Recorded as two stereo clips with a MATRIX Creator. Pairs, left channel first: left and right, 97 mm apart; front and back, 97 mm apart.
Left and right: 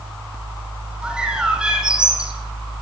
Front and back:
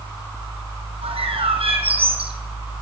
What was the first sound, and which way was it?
A bird, 170° right.